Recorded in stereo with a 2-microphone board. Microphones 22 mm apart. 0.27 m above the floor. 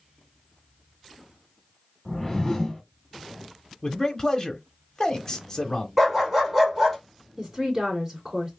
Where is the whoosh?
20° left (ahead or behind), 1.6 m.